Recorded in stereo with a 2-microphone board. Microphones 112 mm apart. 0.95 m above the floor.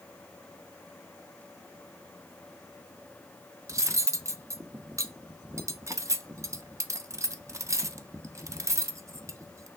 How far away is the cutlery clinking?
About 0.5 m.